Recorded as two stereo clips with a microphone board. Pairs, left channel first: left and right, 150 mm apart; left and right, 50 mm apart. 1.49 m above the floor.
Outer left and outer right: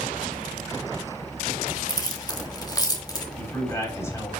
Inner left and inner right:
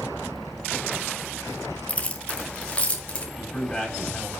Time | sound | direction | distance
1.9 | keys jangling | 25° left (ahead or behind) | 1.4 m
3.4 | a man speaking | 20° left (ahead or behind) | 5 m